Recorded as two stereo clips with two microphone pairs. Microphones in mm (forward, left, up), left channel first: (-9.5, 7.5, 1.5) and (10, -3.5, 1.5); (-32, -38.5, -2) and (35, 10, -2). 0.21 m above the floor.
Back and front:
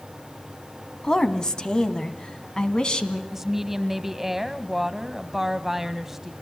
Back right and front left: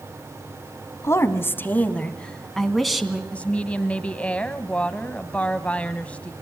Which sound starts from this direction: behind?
A woman speaking, at 1.0 s.